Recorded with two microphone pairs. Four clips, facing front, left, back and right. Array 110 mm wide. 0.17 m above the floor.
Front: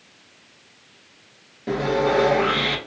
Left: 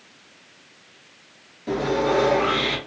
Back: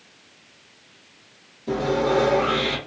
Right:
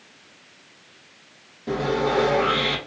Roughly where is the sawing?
Ahead.